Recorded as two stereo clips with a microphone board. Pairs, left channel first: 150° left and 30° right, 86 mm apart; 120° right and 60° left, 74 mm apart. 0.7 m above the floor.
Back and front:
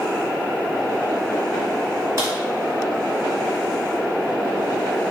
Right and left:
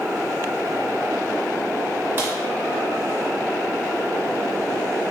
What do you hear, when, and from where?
2.2 s a crack: 10° left, 1.6 m